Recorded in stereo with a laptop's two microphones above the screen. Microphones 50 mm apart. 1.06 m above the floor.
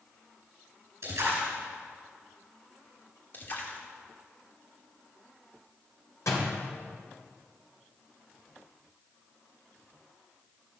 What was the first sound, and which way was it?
A splash, 60° right (ahead or behind).